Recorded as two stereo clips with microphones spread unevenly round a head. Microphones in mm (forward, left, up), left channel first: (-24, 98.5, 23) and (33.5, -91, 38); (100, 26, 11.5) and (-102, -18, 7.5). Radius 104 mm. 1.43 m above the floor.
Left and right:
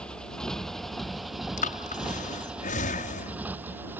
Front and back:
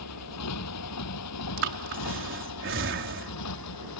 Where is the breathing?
160° left.